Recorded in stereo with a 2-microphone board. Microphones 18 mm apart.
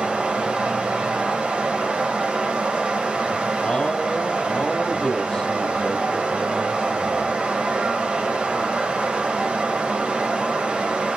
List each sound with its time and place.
0.0 s running water: 85° right, 3 m
3.6 s a man speaking: 40° left (ahead or behind), 1.4 m